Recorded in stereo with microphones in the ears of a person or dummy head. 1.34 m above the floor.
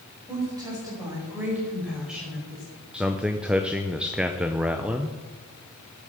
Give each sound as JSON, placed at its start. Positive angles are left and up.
{"t": 0.3, "sound": "a woman speaking", "side_deg": -20, "distance_m": 5.0}
{"t": 2.9, "sound": "a man speaking", "side_deg": -5, "distance_m": 0.6}